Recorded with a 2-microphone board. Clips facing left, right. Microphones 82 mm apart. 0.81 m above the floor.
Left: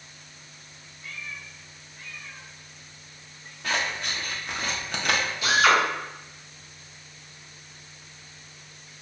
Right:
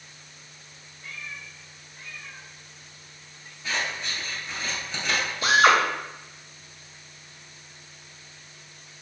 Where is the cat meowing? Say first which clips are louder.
Even; 55° right (ahead or behind), 1.8 m; by 3.5 s 30° left (ahead or behind), 0.6 m.